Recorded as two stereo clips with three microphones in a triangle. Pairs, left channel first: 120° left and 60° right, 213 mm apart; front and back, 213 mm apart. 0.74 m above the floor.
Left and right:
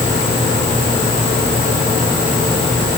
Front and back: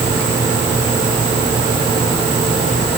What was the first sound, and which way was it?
Only background noise.